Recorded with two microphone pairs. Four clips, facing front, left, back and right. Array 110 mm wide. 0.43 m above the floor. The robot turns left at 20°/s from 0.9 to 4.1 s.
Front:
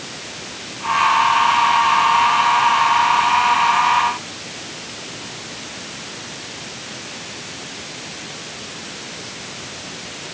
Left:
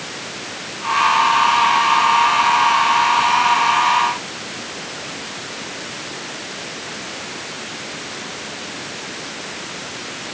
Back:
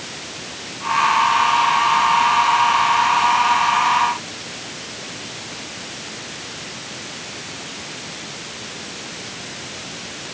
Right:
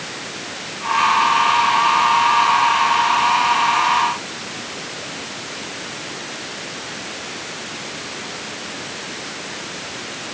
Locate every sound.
Only background noise.